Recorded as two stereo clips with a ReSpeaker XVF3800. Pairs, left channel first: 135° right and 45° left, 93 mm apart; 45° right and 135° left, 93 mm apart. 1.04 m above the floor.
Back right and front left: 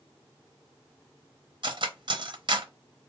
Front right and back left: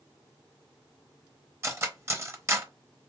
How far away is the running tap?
No running tap in this recording.